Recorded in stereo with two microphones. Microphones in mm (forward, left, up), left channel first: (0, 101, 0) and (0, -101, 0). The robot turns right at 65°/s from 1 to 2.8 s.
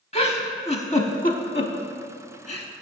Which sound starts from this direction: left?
A giggle, at 0.1 s.